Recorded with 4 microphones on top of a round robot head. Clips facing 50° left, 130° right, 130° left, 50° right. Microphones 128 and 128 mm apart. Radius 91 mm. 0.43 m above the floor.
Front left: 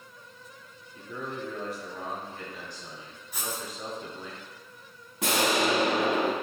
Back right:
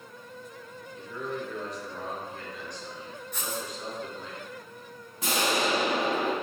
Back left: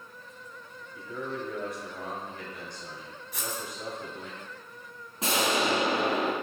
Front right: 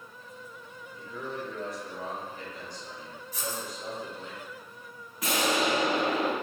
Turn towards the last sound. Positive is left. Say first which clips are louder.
# front left 2 dB, even
turn(degrees=70)